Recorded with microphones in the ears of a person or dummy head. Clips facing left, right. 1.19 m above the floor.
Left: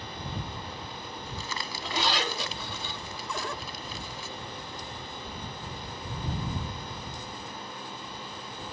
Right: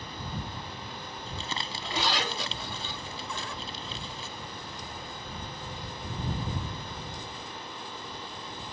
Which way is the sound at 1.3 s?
25° right (ahead or behind).